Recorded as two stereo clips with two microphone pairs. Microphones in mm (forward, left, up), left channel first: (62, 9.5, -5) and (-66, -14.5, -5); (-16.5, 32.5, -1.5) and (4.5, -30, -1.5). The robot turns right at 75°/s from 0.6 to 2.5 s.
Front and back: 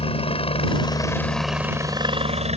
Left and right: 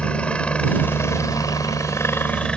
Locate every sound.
0.0 s a helicopter: 40° left; by 2.6 s straight behind